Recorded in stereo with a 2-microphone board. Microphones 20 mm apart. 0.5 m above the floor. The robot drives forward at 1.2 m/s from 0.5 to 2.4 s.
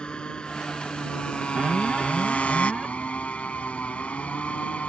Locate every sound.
0.0 s a motorcycle: 40° left (ahead or behind); by 4.9 s 85° left
1.6 s an alarm: 30° right (ahead or behind); by 2.9 s 15° right (ahead or behind)